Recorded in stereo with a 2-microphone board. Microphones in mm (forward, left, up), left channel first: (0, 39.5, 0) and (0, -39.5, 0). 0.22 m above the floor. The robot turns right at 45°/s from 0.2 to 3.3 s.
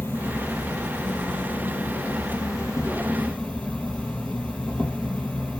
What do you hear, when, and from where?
0.0 s an insect: 25° left, 1.5 m; by 5.6 s 165° left, 1.5 m